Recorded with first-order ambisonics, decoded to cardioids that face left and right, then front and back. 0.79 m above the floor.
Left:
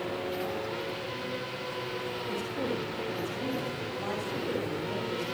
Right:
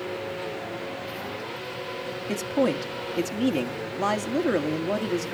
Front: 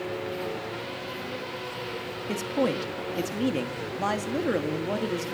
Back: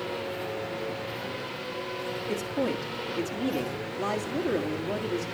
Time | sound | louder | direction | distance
2.3 | a man speaking | right 11 dB, front 4 dB | 65° right | 1.6 m